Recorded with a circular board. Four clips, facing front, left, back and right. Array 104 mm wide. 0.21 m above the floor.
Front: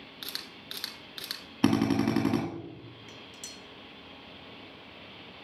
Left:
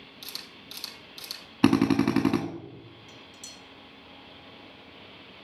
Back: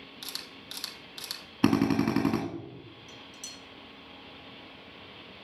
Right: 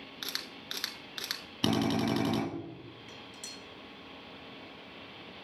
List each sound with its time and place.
0.2 s a camera shutter: 75° right, 1.0 m
1.6 s a drill: 95° left, 1.7 m
3.1 s dishes clattering: 30° right, 2.5 m